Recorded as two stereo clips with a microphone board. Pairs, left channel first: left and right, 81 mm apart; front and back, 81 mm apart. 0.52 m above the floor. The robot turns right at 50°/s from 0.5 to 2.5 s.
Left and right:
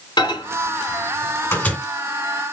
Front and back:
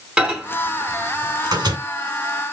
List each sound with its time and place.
0.2 s a microwave: 105° left, 1.9 m; by 1.8 s 165° left, 1.9 m